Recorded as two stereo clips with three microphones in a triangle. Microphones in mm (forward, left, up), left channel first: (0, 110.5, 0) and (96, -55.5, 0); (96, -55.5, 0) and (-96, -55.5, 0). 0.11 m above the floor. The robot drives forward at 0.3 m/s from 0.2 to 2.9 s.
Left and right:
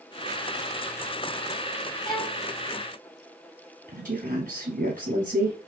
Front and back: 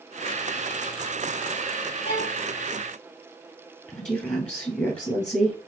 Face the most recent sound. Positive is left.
turn(degrees=-85)